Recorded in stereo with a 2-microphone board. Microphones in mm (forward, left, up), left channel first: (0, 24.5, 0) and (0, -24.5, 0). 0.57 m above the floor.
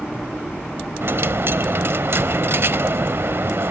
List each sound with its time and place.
1.0 s a dropped coin: 55° right (ahead or behind), 0.6 m